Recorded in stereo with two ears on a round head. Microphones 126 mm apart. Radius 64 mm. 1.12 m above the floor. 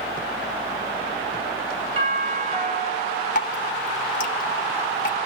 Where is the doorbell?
45° right (ahead or behind), 7.5 m.